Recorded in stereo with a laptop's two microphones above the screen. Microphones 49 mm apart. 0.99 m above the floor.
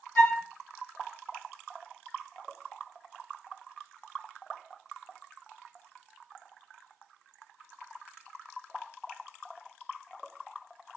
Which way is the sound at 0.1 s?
45° left (ahead or behind).